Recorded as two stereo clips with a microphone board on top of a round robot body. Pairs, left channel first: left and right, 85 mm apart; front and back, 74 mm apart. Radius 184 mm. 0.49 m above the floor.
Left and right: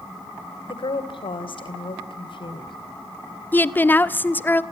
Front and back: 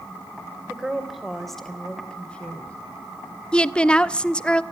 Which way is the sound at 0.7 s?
100° left.